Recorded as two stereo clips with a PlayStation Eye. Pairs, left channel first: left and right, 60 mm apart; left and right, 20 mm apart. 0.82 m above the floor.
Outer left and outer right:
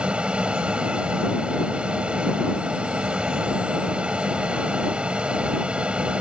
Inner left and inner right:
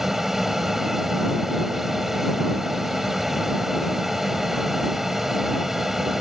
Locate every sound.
0.0 s an aircraft: 20° right (ahead or behind)